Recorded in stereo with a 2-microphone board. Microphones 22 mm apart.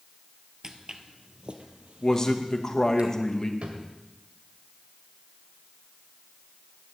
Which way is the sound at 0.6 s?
25° right (ahead or behind).